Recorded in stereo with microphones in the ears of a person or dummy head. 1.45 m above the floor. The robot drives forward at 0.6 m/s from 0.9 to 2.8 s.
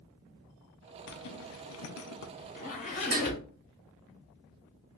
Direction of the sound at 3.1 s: 50° right (ahead or behind).